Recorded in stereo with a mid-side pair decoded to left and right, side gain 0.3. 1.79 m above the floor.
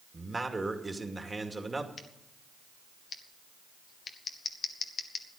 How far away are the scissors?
About 1.1 m.